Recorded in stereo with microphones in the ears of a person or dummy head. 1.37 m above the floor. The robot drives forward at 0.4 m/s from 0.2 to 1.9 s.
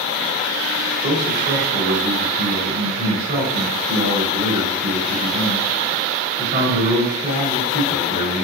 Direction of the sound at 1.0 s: 55° right (ahead or behind).